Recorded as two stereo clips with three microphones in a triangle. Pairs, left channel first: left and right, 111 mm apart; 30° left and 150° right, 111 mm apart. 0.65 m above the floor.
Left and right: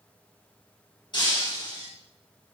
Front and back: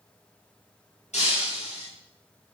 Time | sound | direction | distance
1.1 | breaking glass | 40° left | 5.5 m